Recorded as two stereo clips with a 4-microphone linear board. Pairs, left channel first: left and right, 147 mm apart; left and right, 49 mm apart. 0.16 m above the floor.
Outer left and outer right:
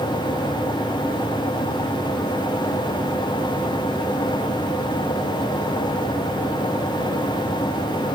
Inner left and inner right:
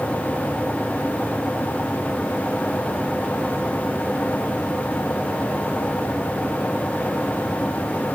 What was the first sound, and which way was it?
Only background noise.